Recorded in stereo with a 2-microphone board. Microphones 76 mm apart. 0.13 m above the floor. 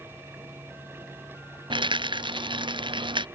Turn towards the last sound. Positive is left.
turn(degrees=-85)